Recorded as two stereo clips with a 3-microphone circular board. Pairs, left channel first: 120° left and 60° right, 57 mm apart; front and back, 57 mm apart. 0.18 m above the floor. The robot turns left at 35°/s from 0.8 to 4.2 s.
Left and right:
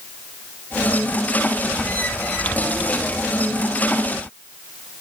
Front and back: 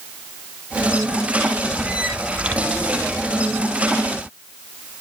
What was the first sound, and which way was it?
Only background noise.